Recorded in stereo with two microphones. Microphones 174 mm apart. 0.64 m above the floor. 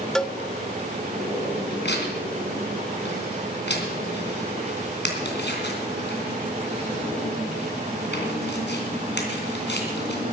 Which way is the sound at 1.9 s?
90° left.